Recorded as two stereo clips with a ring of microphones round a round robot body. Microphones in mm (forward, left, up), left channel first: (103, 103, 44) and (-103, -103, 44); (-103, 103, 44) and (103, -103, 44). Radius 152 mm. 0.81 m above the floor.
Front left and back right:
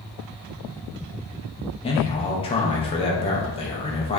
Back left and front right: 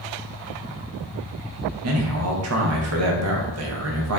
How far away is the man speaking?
About 0.7 m.